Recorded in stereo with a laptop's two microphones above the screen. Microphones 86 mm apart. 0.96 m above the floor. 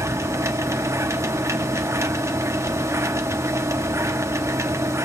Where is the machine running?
35° right (ahead or behind), 1.2 m.